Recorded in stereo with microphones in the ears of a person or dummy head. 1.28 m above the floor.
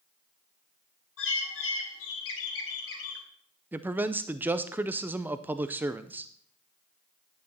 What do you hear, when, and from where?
1.2 s a bird: 85° left, 3.5 m
3.7 s a man speaking: 15° right (ahead or behind), 0.5 m